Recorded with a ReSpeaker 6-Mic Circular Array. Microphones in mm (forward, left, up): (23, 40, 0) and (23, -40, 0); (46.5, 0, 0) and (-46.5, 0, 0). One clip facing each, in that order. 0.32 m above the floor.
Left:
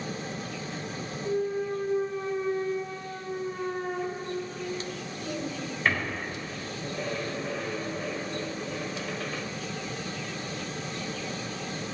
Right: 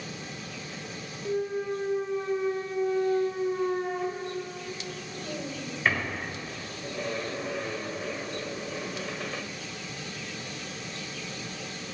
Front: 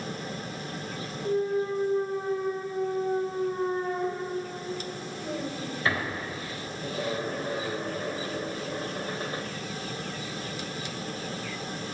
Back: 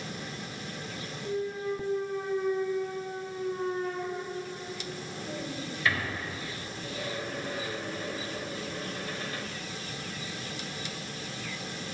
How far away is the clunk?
About 1.3 m.